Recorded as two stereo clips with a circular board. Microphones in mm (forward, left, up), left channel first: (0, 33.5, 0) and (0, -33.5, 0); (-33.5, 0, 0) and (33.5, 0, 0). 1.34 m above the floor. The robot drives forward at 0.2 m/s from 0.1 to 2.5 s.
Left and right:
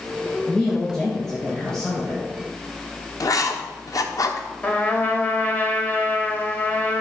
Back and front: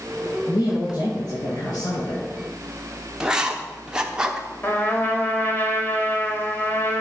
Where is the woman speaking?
175° left, 1.8 m.